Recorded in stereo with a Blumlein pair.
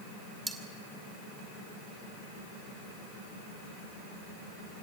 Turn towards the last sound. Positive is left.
turn(degrees=-10)